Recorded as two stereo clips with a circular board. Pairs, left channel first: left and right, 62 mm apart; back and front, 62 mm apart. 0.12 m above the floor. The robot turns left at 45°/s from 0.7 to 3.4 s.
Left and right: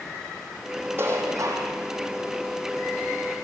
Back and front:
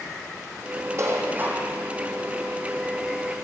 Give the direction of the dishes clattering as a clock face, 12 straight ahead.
1 o'clock.